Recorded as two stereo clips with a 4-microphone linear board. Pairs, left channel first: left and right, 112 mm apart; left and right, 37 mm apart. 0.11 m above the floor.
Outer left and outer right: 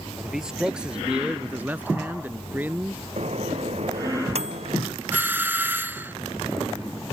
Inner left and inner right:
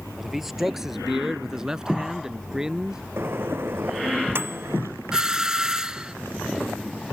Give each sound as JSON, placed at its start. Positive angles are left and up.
{"t": 0.2, "sound": "a man speaking", "side_deg": -5}
{"t": 3.2, "sound": "a microwave", "side_deg": -70}
{"t": 5.1, "sound": "a doorbell", "side_deg": -15}